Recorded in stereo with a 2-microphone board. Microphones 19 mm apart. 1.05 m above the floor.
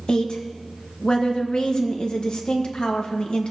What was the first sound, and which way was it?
A woman speaking, 55° left (ahead or behind).